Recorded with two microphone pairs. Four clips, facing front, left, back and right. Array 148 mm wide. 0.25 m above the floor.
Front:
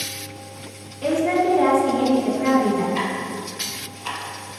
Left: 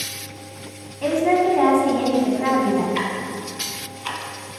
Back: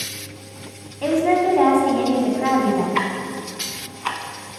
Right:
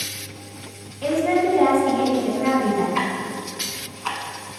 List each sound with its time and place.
1.0 s a woman speaking: 155° left, 1.4 m
3.0 s ticking: 155° right, 0.7 m